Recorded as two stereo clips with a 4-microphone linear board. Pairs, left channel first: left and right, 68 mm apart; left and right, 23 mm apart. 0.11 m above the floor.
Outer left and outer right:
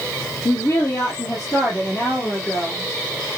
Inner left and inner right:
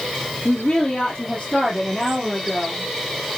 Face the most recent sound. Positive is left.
turn(degrees=30)  # may be behind; listen again after turning